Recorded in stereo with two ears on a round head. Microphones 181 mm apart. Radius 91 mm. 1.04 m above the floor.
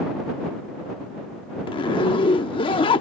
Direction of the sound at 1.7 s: 25° left (ahead or behind).